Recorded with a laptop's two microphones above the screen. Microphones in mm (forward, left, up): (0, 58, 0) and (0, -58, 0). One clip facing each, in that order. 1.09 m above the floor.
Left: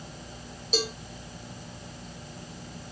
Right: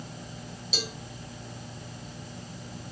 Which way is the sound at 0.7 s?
45° left (ahead or behind).